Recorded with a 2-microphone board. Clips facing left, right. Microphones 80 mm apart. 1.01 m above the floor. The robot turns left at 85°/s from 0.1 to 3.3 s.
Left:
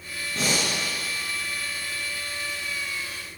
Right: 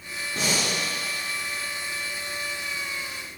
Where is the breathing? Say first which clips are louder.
Left 1 dB; 5° right (ahead or behind), 6 m; by 0.7 s 25° left (ahead or behind), 6 m.